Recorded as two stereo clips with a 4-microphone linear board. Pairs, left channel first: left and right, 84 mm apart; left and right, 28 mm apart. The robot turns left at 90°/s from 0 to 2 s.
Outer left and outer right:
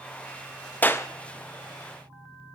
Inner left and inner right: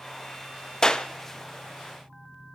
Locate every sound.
0.8 s a clap: 20° left (ahead or behind), 0.6 m; by 1.1 s 35° left (ahead or behind), 0.6 m